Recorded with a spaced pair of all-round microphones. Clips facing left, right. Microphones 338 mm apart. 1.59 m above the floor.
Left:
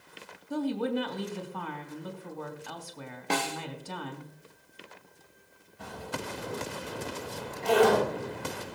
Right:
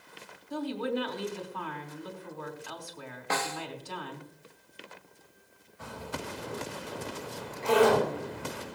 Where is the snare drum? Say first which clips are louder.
Left 3 dB; 40° left (ahead or behind), 0.6 m.